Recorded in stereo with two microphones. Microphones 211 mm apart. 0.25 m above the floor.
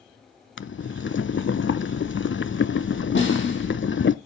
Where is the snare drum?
65° left (ahead or behind), 4.5 m.